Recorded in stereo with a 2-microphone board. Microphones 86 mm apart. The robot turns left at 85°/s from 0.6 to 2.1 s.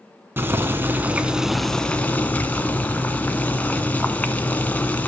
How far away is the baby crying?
I don't hear a baby crying.